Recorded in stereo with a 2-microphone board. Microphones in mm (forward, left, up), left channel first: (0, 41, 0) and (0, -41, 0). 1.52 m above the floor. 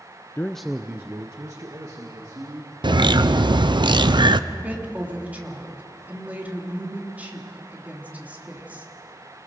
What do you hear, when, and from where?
0.4 s a man speaking: 25° left (ahead or behind), 0.6 m; by 2.7 s 55° right (ahead or behind), 3 m
2.8 s a bird: 70° right (ahead or behind), 0.7 m
4.5 s a woman speaking: 20° right (ahead or behind), 3.5 m